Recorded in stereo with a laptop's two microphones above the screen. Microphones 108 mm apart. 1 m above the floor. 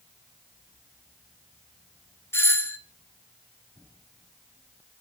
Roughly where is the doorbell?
Left.